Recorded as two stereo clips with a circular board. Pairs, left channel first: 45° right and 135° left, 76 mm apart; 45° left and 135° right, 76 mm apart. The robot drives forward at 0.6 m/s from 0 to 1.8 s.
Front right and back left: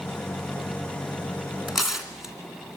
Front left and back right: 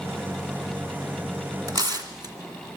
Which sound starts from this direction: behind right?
Tearing paper, at 1.7 s.